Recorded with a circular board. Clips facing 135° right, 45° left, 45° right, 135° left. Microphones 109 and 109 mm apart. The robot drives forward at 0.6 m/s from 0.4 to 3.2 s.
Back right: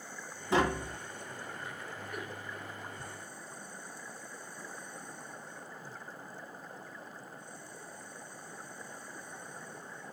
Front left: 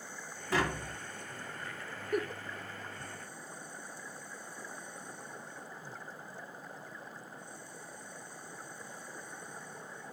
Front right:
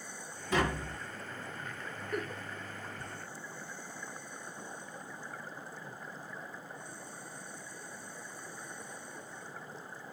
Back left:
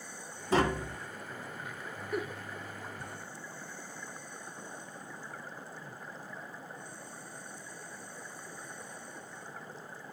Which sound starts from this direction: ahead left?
A giggle, at 2.1 s.